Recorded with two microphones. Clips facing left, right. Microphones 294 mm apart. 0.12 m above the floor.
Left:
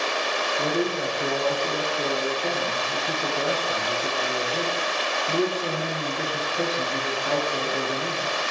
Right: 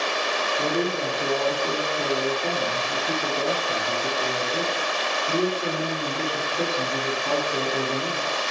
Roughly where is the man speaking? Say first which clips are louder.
Even; centre.